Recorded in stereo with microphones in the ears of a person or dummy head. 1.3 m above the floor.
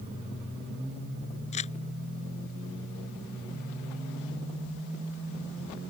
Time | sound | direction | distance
1.5 | crumpling | 35° left (ahead or behind) | ?